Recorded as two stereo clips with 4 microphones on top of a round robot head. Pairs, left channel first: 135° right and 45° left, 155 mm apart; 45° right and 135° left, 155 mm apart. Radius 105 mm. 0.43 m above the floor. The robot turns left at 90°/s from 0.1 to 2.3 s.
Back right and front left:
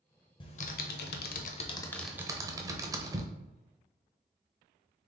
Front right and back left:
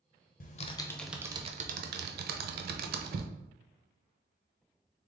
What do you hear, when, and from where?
0.4 s typing on a keyboard: 75° right, 0.6 m; by 3.3 s 115° left, 0.6 m